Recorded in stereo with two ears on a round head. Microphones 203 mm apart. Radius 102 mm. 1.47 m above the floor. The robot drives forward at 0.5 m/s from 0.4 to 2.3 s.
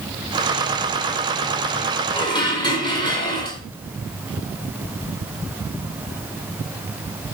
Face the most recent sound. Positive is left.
turn(degrees=20)  # may be behind; listen again after turning